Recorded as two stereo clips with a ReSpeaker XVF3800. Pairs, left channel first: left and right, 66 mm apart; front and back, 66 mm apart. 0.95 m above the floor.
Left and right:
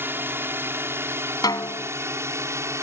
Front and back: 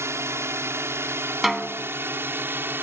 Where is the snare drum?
95° left.